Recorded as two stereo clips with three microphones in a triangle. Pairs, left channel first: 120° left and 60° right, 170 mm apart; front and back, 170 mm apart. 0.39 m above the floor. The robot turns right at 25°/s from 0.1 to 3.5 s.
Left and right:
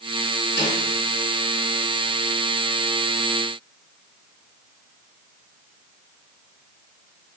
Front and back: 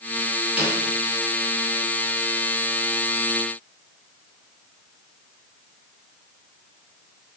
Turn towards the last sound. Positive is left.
turn(degrees=175)